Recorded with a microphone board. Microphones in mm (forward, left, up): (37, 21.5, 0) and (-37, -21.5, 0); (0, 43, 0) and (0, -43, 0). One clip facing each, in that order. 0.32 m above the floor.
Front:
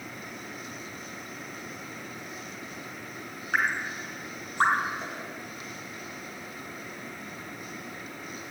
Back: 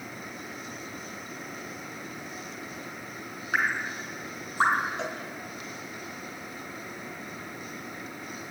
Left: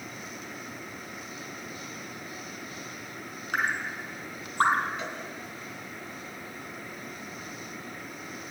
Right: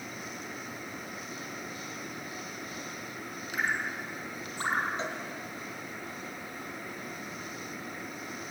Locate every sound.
3.5 s dripping: 125° left, 2.5 m
5.0 s a cowbell: 150° right, 5 m